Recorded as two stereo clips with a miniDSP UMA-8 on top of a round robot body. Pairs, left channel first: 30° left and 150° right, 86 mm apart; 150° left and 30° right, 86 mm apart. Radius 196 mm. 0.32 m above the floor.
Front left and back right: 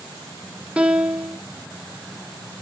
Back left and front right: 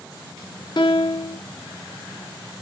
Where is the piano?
135° left, 1.0 m.